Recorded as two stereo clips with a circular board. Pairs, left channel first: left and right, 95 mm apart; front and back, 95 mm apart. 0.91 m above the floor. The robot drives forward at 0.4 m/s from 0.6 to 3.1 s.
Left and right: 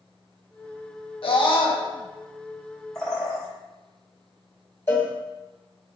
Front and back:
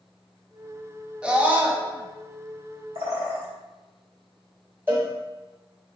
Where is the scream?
100° left, 0.9 m; by 1.8 s 115° left, 0.9 m.